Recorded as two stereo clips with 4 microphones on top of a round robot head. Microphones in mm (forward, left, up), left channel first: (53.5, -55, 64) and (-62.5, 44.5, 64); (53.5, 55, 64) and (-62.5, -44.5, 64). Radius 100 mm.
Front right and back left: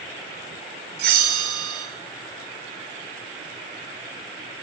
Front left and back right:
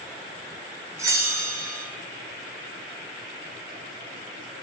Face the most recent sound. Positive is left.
turn(degrees=150)